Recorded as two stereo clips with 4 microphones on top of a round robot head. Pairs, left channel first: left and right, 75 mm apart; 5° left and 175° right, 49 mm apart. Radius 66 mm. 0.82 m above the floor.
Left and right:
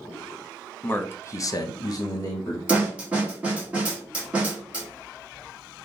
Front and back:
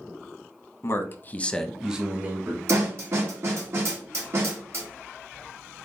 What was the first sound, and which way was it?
A man speaking, 25° left.